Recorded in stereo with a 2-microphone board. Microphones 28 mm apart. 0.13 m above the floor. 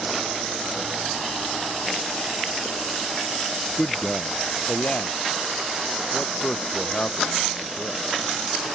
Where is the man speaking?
40° left (ahead or behind); by 8.0 s 65° left (ahead or behind).